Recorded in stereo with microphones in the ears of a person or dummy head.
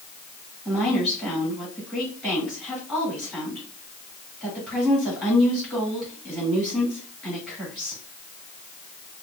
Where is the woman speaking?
5° left (ahead or behind), 3 m.